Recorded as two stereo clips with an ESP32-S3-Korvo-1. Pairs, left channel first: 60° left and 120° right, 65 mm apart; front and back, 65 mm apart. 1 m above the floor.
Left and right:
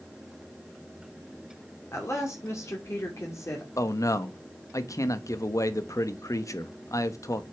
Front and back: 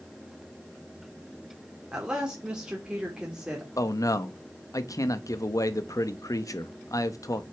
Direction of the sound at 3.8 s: 30° left.